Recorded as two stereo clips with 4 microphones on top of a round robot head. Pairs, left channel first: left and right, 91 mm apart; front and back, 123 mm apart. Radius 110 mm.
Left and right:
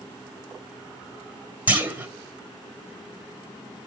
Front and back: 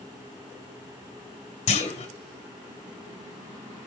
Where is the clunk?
20° right, 3 m.